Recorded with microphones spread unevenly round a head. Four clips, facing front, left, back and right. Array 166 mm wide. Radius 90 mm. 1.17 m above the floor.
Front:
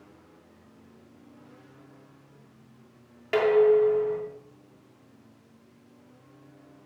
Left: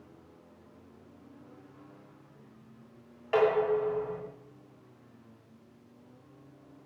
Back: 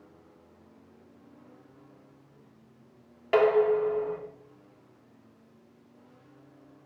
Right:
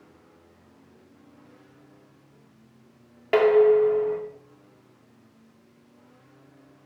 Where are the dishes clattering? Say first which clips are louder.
Right 9 dB, front 2 dB; 100° right, 2 m.